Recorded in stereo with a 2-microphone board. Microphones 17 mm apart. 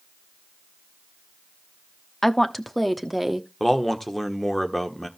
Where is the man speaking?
10° left (ahead or behind), 1.6 m.